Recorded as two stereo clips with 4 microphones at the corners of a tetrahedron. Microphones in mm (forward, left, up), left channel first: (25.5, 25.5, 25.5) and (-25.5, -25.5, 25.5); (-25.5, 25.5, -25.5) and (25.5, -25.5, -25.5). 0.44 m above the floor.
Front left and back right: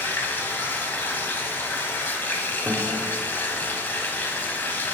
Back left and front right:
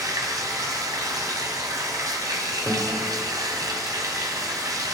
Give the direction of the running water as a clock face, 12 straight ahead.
1 o'clock.